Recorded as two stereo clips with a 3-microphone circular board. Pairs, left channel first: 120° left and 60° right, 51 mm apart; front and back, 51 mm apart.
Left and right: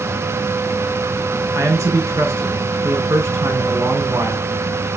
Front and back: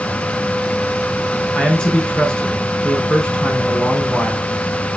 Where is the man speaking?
75° right, 4 m.